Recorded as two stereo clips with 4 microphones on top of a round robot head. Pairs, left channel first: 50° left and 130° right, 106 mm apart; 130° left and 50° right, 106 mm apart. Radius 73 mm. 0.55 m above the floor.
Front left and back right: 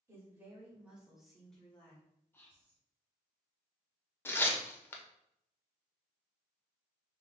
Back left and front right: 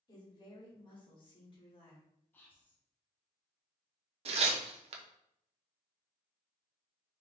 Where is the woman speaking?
170° left, 1.9 m; by 2.0 s 115° left, 1.8 m.